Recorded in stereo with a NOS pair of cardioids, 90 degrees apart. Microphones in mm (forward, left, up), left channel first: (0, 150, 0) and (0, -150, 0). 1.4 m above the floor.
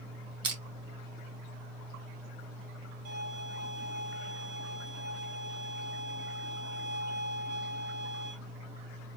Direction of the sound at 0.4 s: 50° right.